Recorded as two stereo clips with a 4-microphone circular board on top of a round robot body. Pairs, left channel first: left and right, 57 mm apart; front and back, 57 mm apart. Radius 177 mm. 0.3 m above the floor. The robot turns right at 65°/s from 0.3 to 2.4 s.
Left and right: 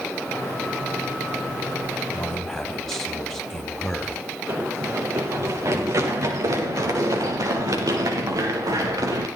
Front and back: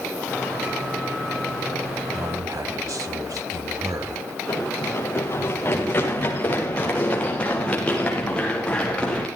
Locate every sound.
2.1 s a man speaking: 155° left, 3.5 m; by 4.2 s 175° left, 3.5 m
4.5 s running footsteps: 40° right, 4.5 m; by 9.3 s 75° right, 6.5 m